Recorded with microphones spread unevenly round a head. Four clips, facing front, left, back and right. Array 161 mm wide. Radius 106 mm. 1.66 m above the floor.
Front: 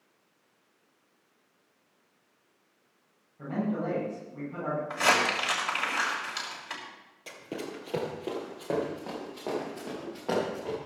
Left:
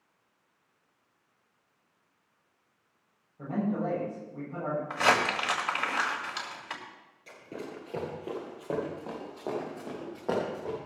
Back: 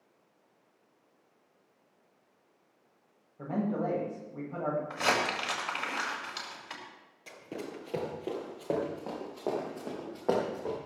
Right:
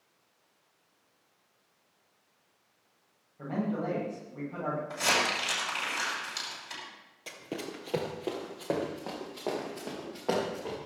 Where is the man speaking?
170° right, 7 m.